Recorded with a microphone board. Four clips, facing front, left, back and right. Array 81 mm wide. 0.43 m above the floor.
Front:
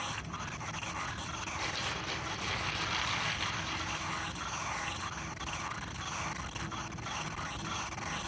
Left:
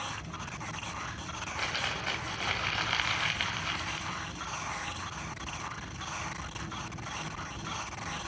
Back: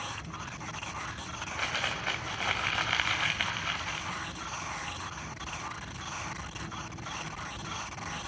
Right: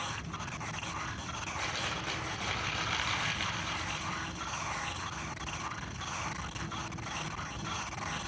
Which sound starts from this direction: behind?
Crumpling, at 1.4 s.